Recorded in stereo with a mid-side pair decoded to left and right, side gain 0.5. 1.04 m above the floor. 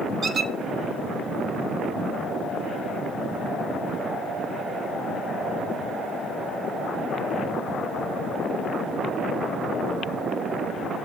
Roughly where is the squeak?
Ahead right.